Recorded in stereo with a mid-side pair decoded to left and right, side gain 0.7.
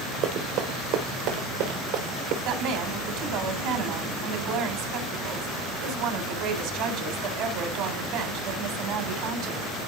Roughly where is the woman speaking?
Ahead right.